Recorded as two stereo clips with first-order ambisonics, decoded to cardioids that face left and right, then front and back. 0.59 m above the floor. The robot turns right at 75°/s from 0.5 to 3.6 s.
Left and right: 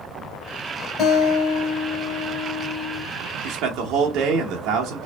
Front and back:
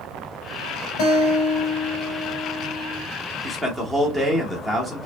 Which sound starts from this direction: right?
A man speaking, at 3.4 s.